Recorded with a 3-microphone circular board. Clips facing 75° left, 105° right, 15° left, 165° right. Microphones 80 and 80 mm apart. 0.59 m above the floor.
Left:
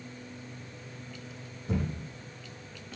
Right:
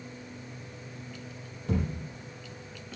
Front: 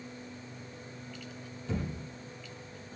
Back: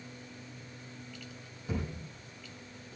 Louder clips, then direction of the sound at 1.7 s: Right 1 dB, front 1 dB; 85° right.